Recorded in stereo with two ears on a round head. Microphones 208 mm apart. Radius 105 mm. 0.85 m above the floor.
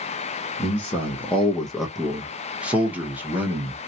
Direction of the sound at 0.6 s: 10° left (ahead or behind).